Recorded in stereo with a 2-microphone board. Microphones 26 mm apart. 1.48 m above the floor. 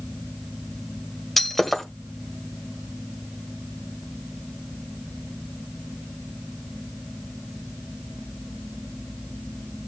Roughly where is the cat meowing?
I don't hear a cat meowing.